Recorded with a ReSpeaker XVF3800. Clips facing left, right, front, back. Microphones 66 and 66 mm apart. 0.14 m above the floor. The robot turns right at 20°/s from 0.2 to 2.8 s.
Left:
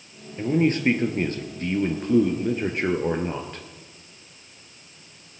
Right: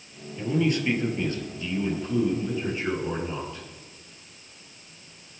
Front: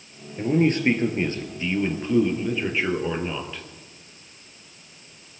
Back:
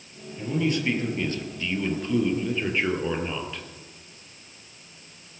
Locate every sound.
0.4 s a man speaking: 40° left, 2.5 m; by 3.6 s 90° left, 2.5 m